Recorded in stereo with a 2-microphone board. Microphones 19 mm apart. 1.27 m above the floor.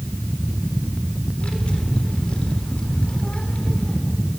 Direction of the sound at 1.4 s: 65° left (ahead or behind).